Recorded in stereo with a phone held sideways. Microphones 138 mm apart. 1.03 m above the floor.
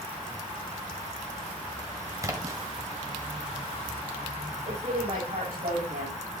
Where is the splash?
25° right (ahead or behind), 1.8 m.